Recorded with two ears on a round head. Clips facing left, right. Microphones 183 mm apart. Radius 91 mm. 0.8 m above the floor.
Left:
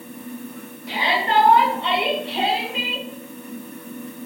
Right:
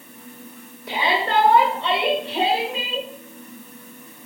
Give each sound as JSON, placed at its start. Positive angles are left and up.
{"t": 0.9, "sound": "a shout", "side_deg": -80, "distance_m": 3.0}